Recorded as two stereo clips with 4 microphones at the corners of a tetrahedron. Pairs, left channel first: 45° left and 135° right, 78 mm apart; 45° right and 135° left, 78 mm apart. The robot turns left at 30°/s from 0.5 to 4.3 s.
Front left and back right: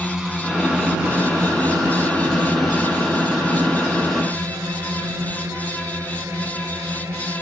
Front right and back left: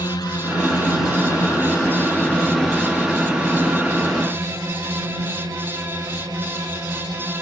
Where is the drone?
50° right; by 7.4 s 170° left.